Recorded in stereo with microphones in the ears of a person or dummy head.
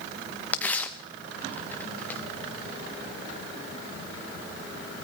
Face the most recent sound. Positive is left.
turn(degrees=5)  # may be behind; listen again after turning